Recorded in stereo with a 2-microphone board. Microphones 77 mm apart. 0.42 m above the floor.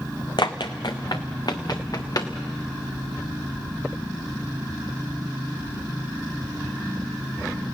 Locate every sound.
0.4 s running footsteps: 65° left (ahead or behind), 1.2 m; by 2.3 s 50° left (ahead or behind), 2 m